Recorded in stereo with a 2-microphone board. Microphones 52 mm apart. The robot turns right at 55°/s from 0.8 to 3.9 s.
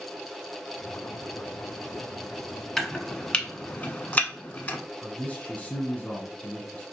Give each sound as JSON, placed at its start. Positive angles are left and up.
{"t": 2.8, "sound": "chopping", "side_deg": 5, "distance_m": 0.8}
{"t": 5.0, "sound": "a man speaking", "side_deg": 25, "distance_m": 1.5}